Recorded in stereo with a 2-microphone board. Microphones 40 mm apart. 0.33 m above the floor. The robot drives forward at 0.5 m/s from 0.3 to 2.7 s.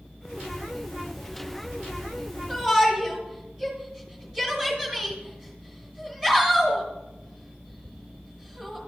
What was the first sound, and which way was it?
A shout, 10° right (ahead or behind).